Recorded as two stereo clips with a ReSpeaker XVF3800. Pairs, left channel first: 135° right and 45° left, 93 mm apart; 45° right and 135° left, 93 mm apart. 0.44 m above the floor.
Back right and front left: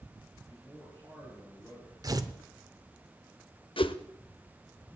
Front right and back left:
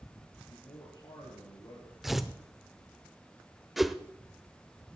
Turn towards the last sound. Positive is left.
turn(degrees=-135)